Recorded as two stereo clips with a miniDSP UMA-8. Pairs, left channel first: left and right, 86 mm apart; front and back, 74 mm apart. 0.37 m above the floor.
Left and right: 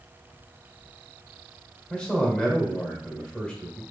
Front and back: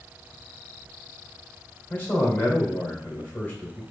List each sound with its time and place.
1.9 s a man speaking: 25° left, 1.3 m